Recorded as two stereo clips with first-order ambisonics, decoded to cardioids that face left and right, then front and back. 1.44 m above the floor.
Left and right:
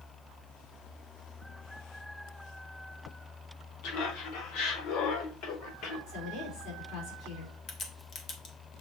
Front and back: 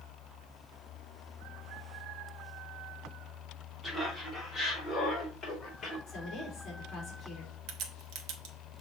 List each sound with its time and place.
3.8 s laughter: 95° left, 3 m; by 6.0 s 70° left, 4.5 m
6.1 s a woman speaking: 65° left, 4 m
7.7 s a crack: 155° left, 1.2 m